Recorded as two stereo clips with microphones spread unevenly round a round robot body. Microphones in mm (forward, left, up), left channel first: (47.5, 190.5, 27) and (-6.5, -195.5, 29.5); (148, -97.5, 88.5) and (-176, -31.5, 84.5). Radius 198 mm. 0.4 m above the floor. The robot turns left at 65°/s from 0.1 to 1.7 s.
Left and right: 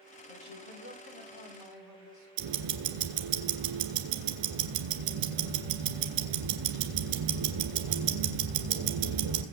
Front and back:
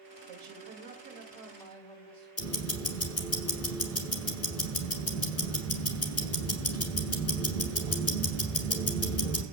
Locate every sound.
0.3 s a woman speaking: 155° left, 2.5 m; by 2.3 s 60° left, 2.5 m
2.4 s ticking: 60° right, 1.8 m